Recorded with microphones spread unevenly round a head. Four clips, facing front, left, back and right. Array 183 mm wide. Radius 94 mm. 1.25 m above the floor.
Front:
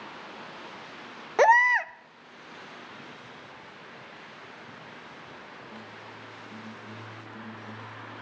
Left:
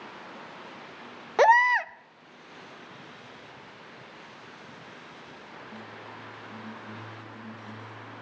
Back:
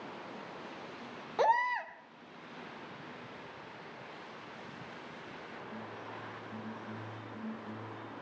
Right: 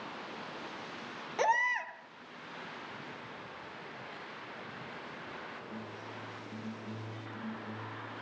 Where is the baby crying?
35° left, 0.6 m.